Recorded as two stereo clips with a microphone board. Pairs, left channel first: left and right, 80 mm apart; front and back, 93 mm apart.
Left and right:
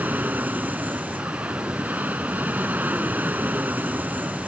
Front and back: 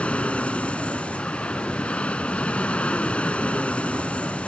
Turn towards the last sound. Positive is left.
turn(degrees=-60)